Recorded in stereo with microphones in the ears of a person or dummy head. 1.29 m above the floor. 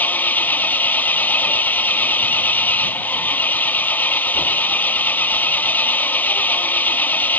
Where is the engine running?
5° left (ahead or behind).